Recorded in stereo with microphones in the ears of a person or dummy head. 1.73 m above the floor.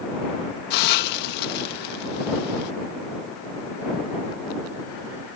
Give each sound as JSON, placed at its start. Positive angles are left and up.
{"t": 0.7, "sound": "a hiss", "side_deg": 60}